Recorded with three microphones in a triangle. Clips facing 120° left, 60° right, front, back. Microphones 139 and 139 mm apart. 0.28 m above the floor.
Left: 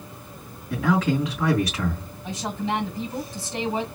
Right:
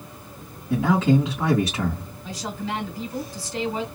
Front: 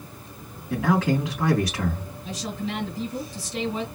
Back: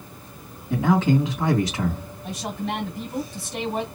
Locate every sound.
0.7 s a man speaking: 120° right, 2.5 m
2.2 s a woman speaking: 175° right, 2.5 m